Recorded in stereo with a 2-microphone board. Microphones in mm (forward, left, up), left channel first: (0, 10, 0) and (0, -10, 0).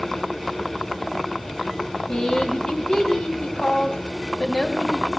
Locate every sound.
2.1 s a woman speaking: 45° left (ahead or behind), 1.5 m